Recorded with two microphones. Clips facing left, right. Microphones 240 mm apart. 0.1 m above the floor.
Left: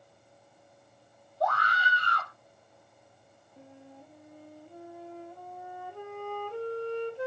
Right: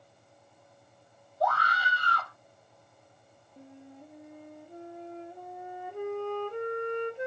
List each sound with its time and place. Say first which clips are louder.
1.4 s a scream: even; 10° right (ahead or behind), 1.9 m
3.6 s a flute: right 2 dB; 20° right (ahead or behind), 0.7 m